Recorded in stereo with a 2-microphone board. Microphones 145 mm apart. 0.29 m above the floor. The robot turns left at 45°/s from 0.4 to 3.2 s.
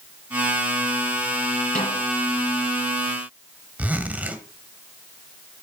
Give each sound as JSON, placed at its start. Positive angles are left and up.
{"t": 1.8, "sound": "a snare drum", "side_deg": 80, "distance_m": 7.5}
{"t": 3.8, "sound": "a zipper", "side_deg": -10, "distance_m": 1.6}